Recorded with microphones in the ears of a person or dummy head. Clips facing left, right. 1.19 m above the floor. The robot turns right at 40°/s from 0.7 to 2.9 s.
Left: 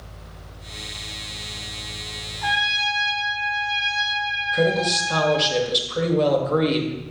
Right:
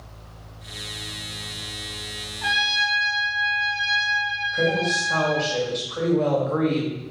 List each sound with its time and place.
2.4 s a trumpet: 40° right (ahead or behind), 1.3 m; by 5.5 s 25° right (ahead or behind), 1.3 m
4.5 s a woman speaking: 50° left (ahead or behind), 1.5 m